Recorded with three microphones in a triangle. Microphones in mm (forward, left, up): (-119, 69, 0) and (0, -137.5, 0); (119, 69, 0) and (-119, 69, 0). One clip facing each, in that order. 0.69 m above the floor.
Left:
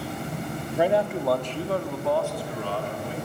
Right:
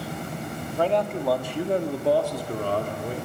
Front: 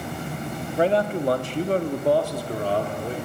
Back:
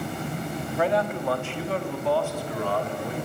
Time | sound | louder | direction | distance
0.8 | a man speaking | left 1 dB, front 4 dB | 50° left | 1.7 m